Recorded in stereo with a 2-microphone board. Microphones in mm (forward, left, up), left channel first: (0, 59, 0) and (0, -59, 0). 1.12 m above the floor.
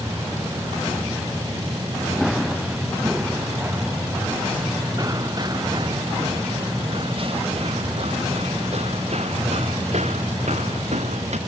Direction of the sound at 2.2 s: Centre (ahead or behind).